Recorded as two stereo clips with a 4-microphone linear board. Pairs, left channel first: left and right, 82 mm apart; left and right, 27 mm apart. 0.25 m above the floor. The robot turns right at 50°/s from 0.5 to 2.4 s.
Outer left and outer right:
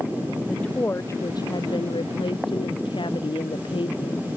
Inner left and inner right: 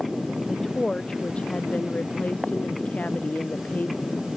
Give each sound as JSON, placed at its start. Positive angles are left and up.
{"t": 0.5, "sound": "a woman speaking", "azimuth_deg": 5}